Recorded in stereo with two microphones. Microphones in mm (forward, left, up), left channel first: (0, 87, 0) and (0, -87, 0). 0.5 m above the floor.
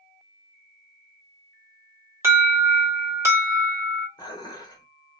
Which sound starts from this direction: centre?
An alarm, at 2.2 s.